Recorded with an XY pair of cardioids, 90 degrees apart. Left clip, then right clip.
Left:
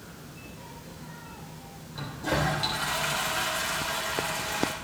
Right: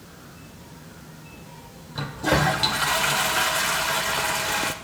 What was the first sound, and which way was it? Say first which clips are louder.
A toilet flushing: right 7 dB; 55° right.